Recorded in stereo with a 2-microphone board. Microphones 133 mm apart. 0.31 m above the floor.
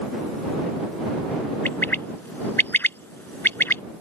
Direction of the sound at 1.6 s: 15° left (ahead or behind).